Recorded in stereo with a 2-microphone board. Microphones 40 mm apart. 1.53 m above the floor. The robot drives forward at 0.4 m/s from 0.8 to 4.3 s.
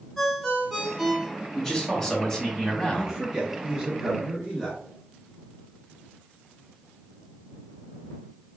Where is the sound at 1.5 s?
10° left (ahead or behind), 1.8 m; by 3.2 s 20° left (ahead or behind), 1.1 m.